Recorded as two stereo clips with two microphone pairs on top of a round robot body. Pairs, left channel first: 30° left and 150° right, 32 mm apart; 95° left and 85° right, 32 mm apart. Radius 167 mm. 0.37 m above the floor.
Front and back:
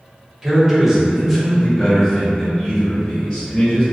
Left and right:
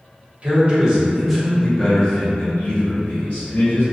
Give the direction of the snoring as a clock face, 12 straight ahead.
I don't hear snoring.